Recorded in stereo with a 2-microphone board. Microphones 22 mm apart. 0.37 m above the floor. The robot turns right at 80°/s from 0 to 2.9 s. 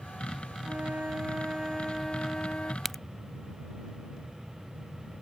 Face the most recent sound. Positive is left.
turn(degrees=15)  # may be behind; listen again after turning